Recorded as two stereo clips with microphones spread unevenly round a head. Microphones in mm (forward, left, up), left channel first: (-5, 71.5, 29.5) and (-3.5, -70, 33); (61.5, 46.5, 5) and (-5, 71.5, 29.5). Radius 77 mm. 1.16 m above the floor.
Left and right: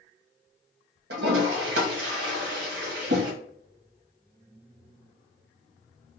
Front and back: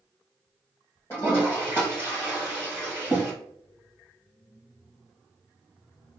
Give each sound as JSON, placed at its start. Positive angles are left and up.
{"t": 1.1, "sound": "a toilet flushing", "azimuth_deg": -90, "distance_m": 0.8}